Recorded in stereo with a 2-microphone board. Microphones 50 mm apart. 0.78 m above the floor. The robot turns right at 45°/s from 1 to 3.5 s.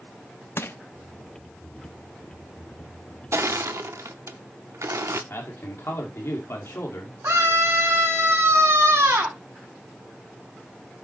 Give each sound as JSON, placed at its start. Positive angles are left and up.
{"t": 0.6, "sound": "crushing", "side_deg": 55, "distance_m": 0.6}
{"t": 3.3, "sound": "crushing", "side_deg": -70, "distance_m": 0.6}
{"t": 5.3, "sound": "a man speaking", "side_deg": 65, "distance_m": 2.0}
{"t": 7.2, "sound": "a scream", "side_deg": -75, "distance_m": 4.0}